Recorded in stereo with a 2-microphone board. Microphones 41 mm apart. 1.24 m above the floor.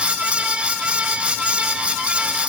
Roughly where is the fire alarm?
I don't hear a fire alarm.